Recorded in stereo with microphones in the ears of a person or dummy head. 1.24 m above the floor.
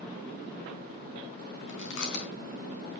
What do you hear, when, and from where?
1.7 s chewing: 60° left (ahead or behind), 3.5 m